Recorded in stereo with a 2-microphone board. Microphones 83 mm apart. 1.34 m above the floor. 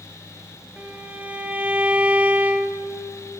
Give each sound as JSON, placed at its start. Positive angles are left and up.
{"t": 0.8, "sound": "a violin", "side_deg": -20, "distance_m": 3.0}